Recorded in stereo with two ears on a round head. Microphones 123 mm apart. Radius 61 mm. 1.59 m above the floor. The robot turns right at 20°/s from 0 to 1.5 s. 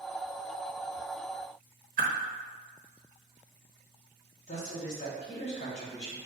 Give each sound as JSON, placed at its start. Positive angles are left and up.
{"t": 2.0, "sound": "a whoosh", "side_deg": -65, "distance_m": 0.7}
{"t": 4.5, "sound": "a man speaking", "side_deg": 50, "distance_m": 1.3}